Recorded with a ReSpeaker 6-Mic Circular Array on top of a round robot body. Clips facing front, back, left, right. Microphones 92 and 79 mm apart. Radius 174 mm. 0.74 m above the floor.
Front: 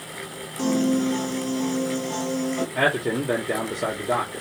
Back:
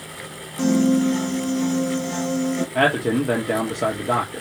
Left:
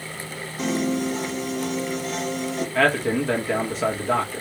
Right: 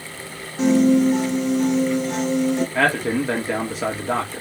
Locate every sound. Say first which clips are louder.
0.6 s a piano: back 4 dB, right 9 dB; 155° right, 3.5 m
2.8 s a man speaking: back 4 dB, right 1 dB; 170° right, 2.5 m